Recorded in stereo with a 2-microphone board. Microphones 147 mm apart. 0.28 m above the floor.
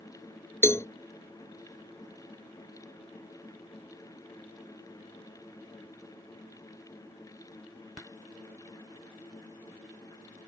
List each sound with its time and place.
0.6 s a cowbell: 20° left (ahead or behind)